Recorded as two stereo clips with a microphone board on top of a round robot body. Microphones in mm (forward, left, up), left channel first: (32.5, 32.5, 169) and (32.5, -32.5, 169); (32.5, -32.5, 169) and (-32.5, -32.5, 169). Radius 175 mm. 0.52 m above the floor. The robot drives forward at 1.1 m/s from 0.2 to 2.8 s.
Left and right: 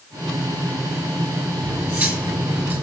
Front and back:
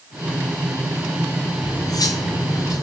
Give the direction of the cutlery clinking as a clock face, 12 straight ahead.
1 o'clock.